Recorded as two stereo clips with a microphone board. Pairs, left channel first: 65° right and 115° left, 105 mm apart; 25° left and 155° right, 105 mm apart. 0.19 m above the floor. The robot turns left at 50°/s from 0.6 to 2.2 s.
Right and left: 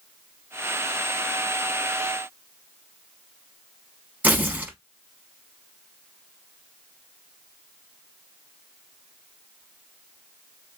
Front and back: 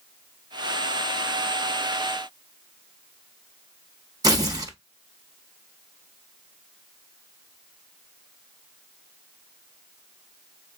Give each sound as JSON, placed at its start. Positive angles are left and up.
{"t": 4.2, "sound": "tearing paper", "azimuth_deg": 175, "distance_m": 0.8}